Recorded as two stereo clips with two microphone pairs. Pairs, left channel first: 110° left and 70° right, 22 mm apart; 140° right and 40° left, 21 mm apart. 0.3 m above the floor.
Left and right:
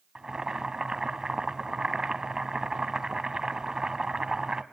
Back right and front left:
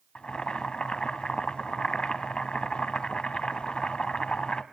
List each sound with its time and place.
0.1 s boiling: 125° right, 0.8 m